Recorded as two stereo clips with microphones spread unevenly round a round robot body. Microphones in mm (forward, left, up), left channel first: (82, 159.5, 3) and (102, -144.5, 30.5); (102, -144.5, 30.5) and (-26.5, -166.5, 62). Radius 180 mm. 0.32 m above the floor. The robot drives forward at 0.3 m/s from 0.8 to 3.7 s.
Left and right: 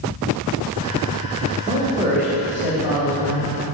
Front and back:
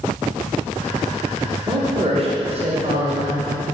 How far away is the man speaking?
About 1.2 m.